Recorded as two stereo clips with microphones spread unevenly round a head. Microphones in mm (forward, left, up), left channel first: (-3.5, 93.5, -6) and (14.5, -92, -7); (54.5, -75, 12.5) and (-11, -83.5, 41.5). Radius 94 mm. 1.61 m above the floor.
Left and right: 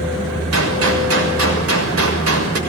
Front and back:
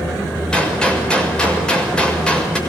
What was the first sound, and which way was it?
A gunshot, 70° right.